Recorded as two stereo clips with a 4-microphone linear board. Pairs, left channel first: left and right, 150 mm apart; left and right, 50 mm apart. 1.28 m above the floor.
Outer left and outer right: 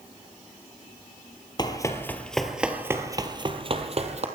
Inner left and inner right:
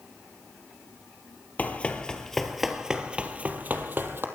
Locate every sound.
1.6 s running footsteps: 30° left (ahead or behind), 1.4 m; by 4.2 s 50° right (ahead or behind), 1.9 m